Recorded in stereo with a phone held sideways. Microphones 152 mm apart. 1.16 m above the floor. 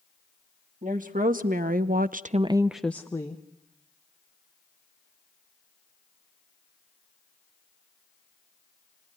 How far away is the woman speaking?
About 2.0 m.